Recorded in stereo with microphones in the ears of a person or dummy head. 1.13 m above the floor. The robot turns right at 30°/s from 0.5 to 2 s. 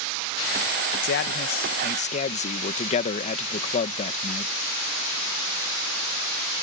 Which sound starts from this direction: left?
A man speaking, at 1.0 s.